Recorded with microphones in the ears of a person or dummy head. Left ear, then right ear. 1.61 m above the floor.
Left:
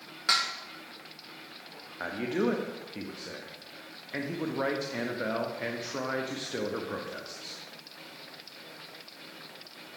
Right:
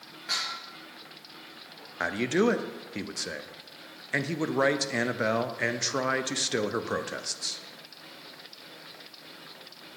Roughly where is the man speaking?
Right.